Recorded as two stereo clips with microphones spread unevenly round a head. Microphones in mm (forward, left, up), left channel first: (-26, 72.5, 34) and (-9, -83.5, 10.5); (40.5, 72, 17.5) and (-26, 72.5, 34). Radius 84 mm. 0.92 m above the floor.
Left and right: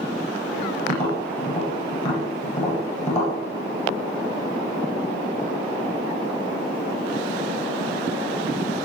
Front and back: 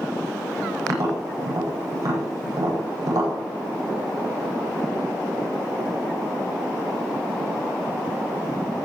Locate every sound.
0.9 s tapping: 140° left, 10 m